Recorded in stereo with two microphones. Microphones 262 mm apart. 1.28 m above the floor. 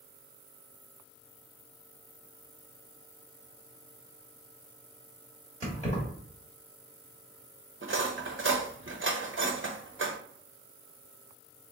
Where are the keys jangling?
30° left (ahead or behind), 1.4 m.